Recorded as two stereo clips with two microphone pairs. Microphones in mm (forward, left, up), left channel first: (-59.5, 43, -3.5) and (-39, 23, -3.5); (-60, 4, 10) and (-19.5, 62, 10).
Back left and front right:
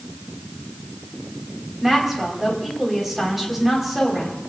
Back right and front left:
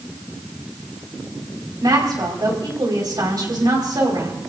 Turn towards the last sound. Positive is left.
turn(degrees=40)